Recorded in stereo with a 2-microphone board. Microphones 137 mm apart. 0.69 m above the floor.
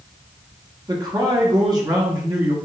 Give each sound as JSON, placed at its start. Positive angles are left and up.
{"t": 0.9, "sound": "a man speaking", "side_deg": -30, "distance_m": 1.3}